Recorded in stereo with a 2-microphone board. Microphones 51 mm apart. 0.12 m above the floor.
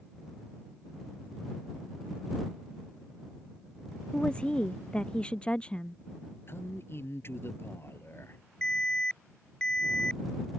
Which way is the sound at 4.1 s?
20° left (ahead or behind).